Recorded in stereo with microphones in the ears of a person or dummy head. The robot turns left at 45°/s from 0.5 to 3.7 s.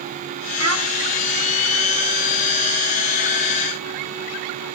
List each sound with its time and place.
0.6 s a child speaking: 75° right (ahead or behind), 1.5 m; by 0.9 s 85° right, 1.5 m